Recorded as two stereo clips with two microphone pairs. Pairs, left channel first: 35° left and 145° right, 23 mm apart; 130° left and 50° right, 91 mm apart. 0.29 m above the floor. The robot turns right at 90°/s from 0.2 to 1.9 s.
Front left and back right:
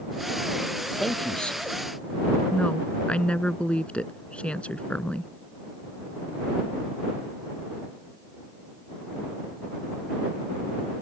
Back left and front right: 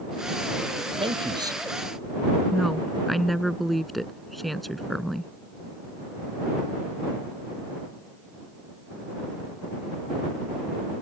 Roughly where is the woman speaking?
Ahead left.